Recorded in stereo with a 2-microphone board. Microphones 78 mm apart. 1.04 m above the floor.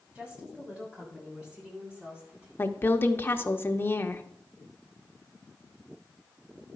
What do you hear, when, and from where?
0.1 s a woman speaking: 15° right (ahead or behind), 6 m
2.6 s a woman speaking: 30° left (ahead or behind), 1.0 m